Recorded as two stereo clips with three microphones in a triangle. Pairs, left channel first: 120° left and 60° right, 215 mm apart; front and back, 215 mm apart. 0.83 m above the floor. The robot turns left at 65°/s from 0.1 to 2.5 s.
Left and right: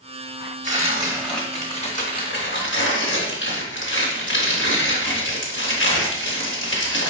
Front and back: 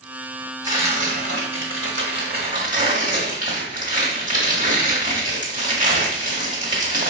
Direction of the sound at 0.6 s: 105° right.